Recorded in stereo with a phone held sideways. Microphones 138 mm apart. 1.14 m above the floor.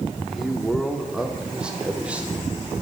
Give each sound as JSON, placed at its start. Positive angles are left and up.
{"t": 0.2, "sound": "a man speaking", "side_deg": 0, "distance_m": 3.5}